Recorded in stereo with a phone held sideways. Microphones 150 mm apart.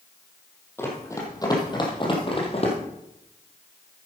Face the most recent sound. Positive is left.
turn(degrees=45)  # may be behind; listen again after turning